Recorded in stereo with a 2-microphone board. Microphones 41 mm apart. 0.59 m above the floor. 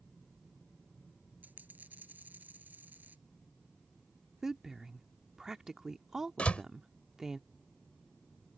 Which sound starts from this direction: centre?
A woman speaking, at 4.4 s.